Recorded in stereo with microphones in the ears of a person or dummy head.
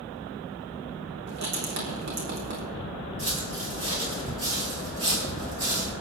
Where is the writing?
60° right (ahead or behind), 3.5 m.